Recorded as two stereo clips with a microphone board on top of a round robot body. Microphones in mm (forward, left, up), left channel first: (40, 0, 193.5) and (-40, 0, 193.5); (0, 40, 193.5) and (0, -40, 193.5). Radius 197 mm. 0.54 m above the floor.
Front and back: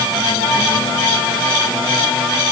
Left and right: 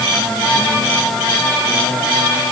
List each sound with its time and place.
Only background noise.